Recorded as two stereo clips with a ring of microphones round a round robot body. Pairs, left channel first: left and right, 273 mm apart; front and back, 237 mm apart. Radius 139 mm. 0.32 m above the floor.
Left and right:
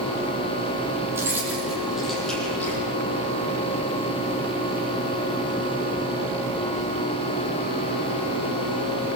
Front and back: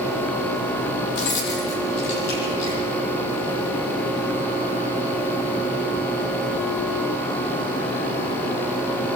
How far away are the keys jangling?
About 8.5 m.